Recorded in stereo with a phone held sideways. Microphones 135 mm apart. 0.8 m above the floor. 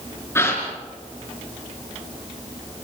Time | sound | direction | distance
0.3 | a gasp | 20° left (ahead or behind) | 4 m